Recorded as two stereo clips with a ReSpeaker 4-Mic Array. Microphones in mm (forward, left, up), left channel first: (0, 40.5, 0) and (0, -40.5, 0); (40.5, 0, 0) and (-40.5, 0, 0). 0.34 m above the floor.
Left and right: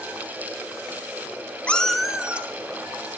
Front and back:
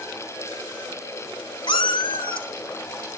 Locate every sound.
1.7 s a cat meowing: 15° left, 0.9 m; by 3.1 s 25° right, 2.0 m